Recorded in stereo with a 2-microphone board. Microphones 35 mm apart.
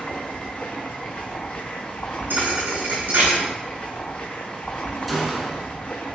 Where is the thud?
70° right (ahead or behind), 1.9 m.